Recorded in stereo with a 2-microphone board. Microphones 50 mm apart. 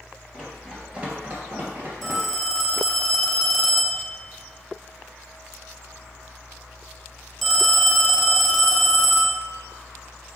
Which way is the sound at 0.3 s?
10° right (ahead or behind).